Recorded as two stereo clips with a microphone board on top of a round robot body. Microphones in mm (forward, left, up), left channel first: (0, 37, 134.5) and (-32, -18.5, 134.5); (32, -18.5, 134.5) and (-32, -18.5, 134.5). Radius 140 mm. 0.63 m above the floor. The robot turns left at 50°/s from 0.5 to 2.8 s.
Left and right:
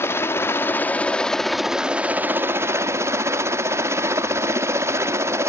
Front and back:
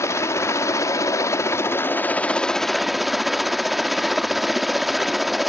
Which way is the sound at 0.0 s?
25° left.